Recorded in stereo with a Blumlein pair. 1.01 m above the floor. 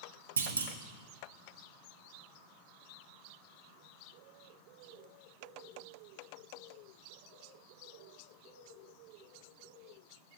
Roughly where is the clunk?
Right.